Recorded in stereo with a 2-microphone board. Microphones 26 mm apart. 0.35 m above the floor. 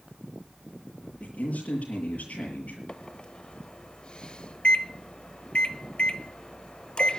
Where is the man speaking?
80° left, 7.5 m.